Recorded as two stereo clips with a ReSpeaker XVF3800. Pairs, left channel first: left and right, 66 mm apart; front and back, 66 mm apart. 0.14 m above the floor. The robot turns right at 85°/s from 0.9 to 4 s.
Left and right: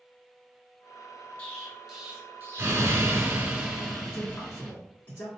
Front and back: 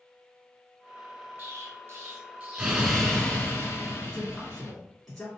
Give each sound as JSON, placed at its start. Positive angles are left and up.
{"t": 1.4, "sound": "an explosion", "azimuth_deg": 145, "distance_m": 1.3}
{"t": 4.1, "sound": "a man speaking", "azimuth_deg": 80, "distance_m": 1.3}